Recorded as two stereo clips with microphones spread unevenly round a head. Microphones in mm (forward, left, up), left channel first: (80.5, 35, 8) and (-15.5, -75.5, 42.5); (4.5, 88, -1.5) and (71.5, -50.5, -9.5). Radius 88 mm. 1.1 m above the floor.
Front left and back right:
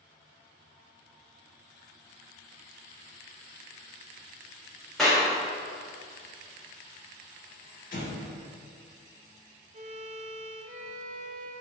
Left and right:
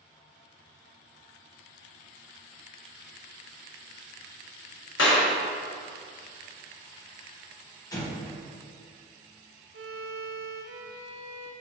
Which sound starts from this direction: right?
A violin, at 9.7 s.